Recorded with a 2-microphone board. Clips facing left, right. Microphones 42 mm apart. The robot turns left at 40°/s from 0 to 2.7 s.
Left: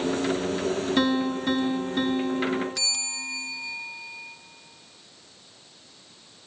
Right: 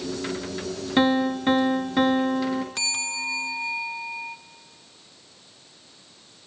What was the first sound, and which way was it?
A piano, 30° right.